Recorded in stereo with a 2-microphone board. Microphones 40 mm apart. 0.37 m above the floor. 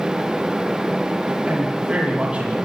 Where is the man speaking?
35° right (ahead or behind), 9 m; by 2.6 s 30° right (ahead or behind), 9.5 m.